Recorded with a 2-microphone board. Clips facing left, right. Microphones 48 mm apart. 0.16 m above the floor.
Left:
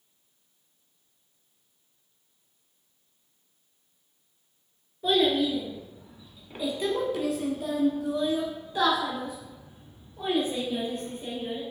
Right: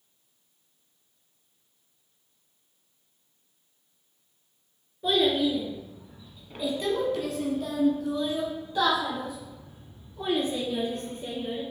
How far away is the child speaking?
About 1.7 m.